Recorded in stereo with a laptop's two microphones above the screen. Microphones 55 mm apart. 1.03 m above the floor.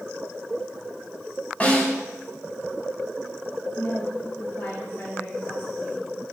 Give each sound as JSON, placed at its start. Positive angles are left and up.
{"t": 1.6, "sound": "a snare drum", "side_deg": 25, "distance_m": 6.0}
{"t": 3.8, "sound": "a woman speaking", "side_deg": 25, "distance_m": 4.5}